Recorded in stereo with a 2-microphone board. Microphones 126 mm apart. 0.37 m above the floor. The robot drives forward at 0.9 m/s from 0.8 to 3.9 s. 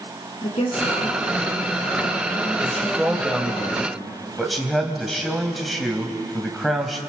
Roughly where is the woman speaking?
Left.